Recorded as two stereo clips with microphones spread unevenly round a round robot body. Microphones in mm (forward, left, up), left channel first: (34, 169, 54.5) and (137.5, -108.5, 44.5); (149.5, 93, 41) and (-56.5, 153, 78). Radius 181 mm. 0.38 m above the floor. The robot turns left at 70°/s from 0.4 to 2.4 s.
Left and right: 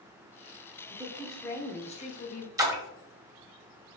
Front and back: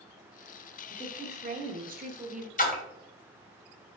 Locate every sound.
0.9 s a woman speaking: 130° right, 0.9 m; by 2.5 s 125° left, 0.9 m
2.6 s a splash: 5° left, 1.3 m